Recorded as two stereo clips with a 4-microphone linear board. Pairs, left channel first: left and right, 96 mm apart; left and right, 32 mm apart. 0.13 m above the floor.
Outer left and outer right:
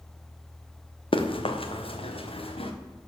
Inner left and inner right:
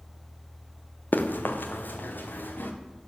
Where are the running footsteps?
70° left (ahead or behind), 1.7 m; by 2.7 s 85° left, 2.5 m.